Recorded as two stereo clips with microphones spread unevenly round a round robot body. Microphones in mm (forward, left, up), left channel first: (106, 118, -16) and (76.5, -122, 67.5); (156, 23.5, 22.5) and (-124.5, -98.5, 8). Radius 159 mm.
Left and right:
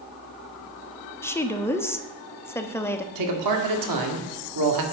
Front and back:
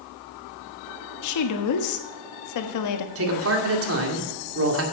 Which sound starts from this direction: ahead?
A woman speaking, at 1.2 s.